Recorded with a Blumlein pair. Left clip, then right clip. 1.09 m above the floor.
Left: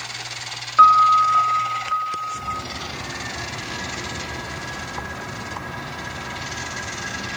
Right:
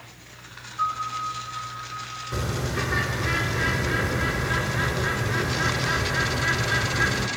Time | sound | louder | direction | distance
0.8 | a piano | left 15 dB | 40° left | 0.9 m
2.3 | a bird | left 1 dB | 45° right | 3 m